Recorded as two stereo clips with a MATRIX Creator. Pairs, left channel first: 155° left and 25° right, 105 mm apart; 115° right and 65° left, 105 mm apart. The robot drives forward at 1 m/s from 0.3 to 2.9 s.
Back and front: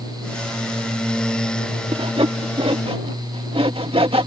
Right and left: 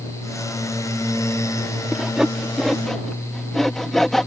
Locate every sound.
1.9 s sawing: 15° right; by 4.3 s 25° right